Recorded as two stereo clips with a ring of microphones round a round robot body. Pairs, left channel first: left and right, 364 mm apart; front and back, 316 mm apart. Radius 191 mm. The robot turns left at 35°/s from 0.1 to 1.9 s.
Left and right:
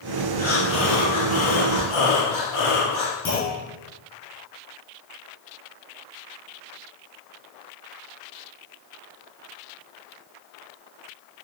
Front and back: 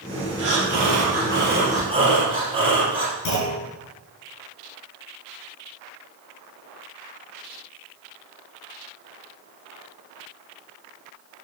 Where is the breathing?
160° left, 3.5 m; by 3.1 s 105° left, 3.5 m.